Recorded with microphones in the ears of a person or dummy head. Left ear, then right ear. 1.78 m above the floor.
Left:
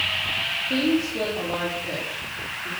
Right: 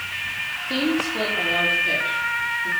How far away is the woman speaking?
About 4.5 m.